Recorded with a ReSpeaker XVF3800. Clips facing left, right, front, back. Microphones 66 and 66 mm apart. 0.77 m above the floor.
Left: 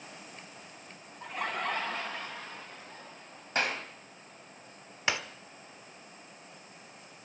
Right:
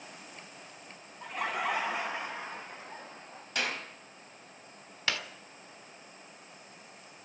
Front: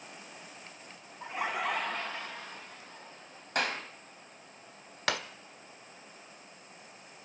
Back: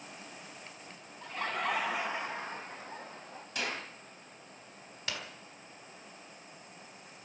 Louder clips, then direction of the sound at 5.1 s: Left 2 dB, front 8 dB; 20° left.